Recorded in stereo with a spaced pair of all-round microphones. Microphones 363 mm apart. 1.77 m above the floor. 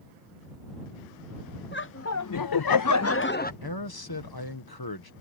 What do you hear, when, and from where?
1.7 s laughter: 30° left (ahead or behind); by 3.5 s 25° left (ahead or behind)
3.6 s a man speaking: 85° left